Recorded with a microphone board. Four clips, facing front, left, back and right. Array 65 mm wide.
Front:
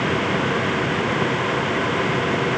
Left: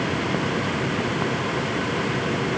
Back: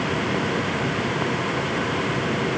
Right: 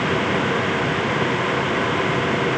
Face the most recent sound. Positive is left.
No sound to turn to.